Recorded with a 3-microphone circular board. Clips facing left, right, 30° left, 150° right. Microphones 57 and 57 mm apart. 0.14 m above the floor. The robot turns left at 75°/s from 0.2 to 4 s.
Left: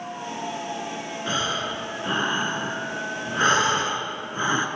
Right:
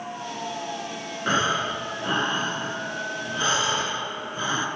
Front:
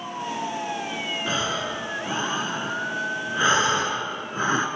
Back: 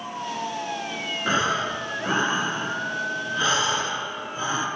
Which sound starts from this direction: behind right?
Breathing, at 1.3 s.